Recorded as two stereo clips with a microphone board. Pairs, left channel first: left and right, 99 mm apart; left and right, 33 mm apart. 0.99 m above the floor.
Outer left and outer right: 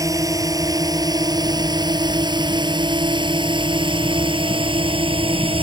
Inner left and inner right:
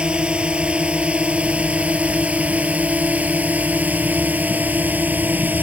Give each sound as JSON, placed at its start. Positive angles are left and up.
{"t": 0.0, "sound": "a drone", "side_deg": -35}